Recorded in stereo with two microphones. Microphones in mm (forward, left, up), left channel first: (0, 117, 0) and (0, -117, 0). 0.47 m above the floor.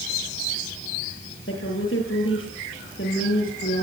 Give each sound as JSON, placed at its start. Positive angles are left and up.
{"t": 1.5, "sound": "a woman speaking", "side_deg": 60, "distance_m": 9.5}